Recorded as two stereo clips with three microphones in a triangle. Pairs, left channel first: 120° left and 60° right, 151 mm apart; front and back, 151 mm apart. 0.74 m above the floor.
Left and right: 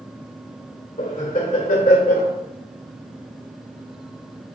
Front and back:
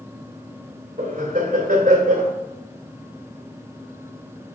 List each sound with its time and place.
1.0 s laughter: 150° left, 2.5 m